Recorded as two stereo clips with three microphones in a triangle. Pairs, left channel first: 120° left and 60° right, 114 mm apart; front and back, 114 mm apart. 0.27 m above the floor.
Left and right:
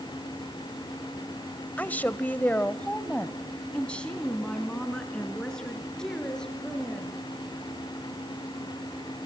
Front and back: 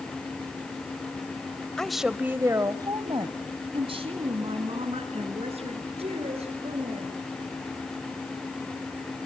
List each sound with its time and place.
1.8 s a woman speaking: 70° left, 0.9 m; by 7.2 s 155° right, 4 m